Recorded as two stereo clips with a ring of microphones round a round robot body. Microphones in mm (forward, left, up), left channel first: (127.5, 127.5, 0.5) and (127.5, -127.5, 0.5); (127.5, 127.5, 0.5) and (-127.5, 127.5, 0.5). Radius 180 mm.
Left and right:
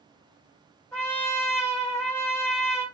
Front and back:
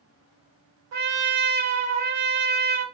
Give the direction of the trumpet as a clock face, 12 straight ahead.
6 o'clock.